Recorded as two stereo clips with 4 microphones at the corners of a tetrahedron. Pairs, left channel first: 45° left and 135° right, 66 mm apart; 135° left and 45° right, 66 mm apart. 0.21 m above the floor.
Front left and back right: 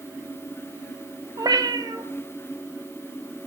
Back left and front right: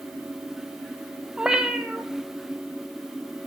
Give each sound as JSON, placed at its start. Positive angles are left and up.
{"t": 1.4, "sound": "a cat meowing", "azimuth_deg": -125, "distance_m": 0.9}